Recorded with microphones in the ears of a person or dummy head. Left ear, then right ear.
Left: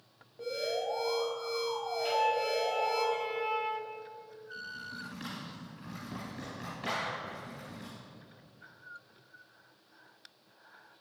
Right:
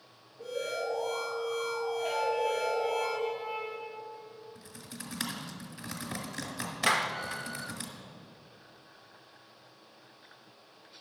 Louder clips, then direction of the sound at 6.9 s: Right 7 dB; 50° right (ahead or behind).